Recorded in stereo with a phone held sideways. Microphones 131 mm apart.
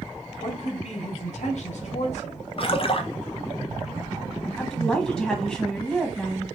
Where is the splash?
45° left (ahead or behind), 0.6 m.